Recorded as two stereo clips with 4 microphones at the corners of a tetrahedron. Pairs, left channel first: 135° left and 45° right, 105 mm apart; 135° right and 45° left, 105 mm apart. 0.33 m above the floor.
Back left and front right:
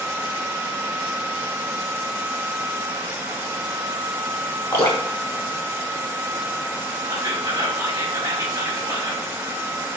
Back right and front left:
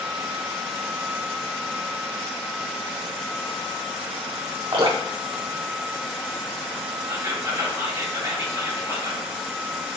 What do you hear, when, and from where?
4.7 s dripping: 75° left, 1.3 m
7.1 s whispering: straight ahead, 1.6 m